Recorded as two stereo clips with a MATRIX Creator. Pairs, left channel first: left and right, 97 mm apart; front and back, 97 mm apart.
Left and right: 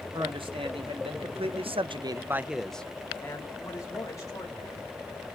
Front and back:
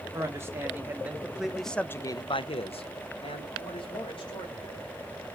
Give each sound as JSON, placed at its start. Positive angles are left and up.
{"t": 0.1, "sound": "a man speaking", "azimuth_deg": -120, "distance_m": 1.6}